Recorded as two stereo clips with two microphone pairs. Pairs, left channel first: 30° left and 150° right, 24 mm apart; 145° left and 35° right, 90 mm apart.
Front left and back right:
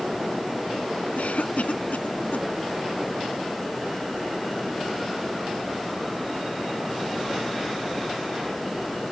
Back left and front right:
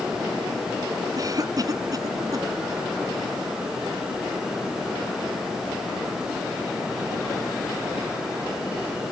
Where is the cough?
15° left.